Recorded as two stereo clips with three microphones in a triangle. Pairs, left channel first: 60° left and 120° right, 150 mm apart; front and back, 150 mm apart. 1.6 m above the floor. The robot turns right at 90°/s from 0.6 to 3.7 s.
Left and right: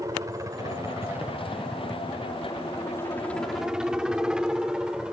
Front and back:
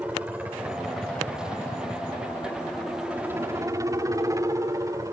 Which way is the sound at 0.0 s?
115° right.